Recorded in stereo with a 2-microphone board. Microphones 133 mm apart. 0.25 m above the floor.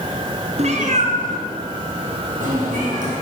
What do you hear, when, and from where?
0.6 s a cat meowing: 55° right (ahead or behind), 1.1 m; by 3.1 s 85° right, 4 m